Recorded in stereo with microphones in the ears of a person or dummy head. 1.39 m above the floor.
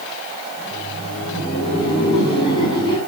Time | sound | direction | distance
0.6 | laughter | 30° left (ahead or behind) | 5 m